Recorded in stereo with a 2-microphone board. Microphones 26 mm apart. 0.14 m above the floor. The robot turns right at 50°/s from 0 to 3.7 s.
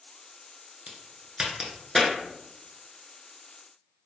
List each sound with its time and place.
0.9 s a crack: 45° right (ahead or behind), 1.0 m; by 2.1 s centre (ahead or behind), 1.0 m